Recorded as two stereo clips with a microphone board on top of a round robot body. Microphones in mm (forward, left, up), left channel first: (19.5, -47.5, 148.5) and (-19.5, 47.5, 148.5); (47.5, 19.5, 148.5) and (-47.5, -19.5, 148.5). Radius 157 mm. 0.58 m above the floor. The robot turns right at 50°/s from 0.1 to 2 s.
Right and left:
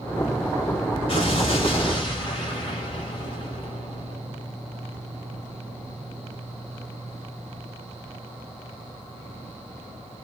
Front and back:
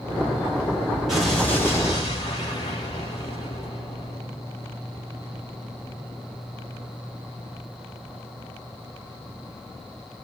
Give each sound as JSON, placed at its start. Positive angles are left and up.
{"t": 1.1, "sound": "an explosion", "azimuth_deg": -70, "distance_m": 2.5}